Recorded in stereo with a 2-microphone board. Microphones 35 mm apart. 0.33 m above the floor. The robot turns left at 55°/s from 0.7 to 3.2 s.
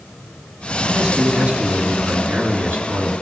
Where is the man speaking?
Straight ahead, 4 m; by 3.1 s 125° right, 4 m.